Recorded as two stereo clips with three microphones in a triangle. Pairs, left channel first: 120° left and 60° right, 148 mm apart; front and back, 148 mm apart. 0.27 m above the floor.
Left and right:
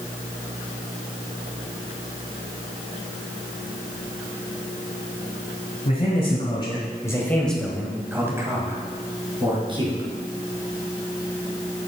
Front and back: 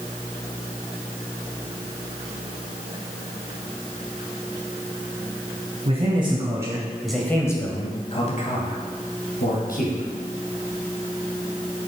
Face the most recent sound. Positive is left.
turn(degrees=-5)